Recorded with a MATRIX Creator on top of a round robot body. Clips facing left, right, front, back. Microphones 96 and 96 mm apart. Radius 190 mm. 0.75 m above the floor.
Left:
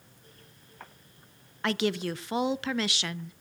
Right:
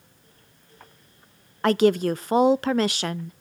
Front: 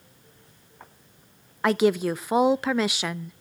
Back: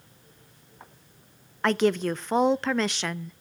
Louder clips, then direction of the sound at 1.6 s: Right 10 dB, front 2 dB; 80° right.